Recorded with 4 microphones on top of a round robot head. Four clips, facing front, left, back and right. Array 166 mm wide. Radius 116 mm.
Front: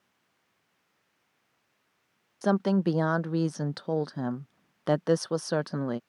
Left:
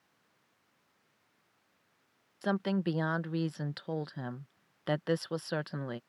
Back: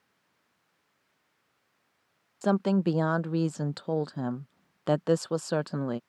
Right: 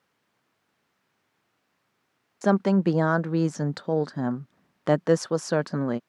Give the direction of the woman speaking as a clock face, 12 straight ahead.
3 o'clock.